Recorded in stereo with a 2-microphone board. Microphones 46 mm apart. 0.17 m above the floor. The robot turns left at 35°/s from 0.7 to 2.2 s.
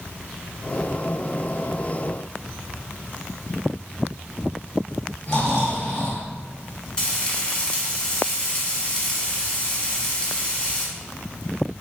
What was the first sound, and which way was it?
Snoring, 50° left (ahead or behind).